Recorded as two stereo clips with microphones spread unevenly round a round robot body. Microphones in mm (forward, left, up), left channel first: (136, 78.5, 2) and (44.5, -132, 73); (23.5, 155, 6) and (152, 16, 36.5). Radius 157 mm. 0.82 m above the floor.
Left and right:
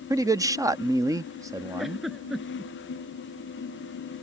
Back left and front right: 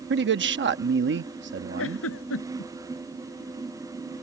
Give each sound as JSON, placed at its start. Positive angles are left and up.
{"t": 0.1, "sound": "a man speaking", "azimuth_deg": -30}
{"t": 1.8, "sound": "a giggle", "azimuth_deg": 160}